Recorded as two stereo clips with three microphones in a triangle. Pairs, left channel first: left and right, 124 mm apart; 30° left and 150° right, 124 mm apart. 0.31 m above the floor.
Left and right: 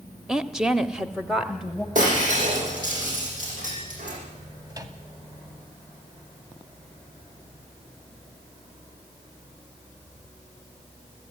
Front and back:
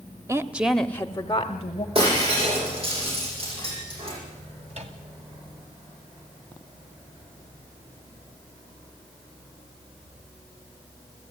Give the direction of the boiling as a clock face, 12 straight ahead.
No boiling in this recording.